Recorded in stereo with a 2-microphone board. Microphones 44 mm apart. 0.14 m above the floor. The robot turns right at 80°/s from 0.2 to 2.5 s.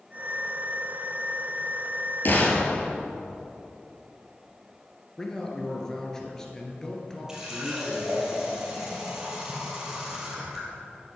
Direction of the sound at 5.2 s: 15° left (ahead or behind).